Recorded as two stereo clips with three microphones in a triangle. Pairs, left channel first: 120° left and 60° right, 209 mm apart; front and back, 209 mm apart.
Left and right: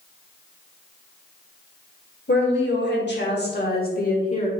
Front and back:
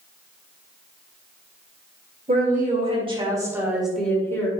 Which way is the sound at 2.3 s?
140° left.